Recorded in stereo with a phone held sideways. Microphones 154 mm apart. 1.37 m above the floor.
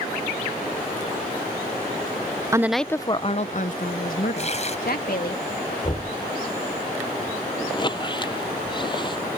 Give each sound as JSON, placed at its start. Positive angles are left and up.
{"t": 2.5, "sound": "a woman speaking", "side_deg": -20}
{"t": 4.4, "sound": "tearing paper", "side_deg": 45}
{"t": 5.8, "sound": "knocking", "side_deg": 30}
{"t": 7.7, "sound": "a squeak", "side_deg": 30}